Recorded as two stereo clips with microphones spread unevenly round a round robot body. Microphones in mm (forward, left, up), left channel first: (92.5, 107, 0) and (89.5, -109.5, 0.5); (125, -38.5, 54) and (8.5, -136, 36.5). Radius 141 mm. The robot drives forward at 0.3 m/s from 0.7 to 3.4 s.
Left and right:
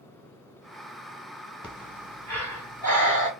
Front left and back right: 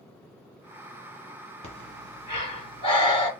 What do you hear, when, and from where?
1.6 s breathing: 10° left, 1.6 m; by 3.3 s 15° left, 1.3 m